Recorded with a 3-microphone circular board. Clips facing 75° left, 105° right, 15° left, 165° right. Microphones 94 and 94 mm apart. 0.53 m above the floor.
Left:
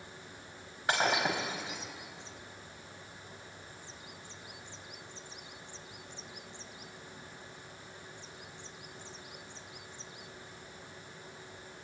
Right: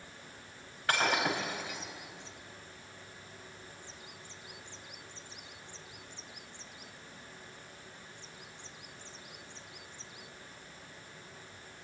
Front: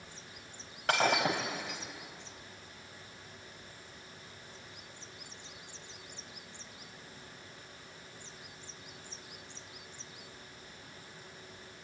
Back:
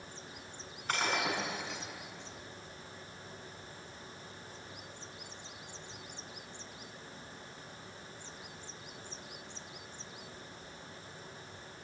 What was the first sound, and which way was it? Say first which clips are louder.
Breaking glass: even, front 5 dB; 5° left.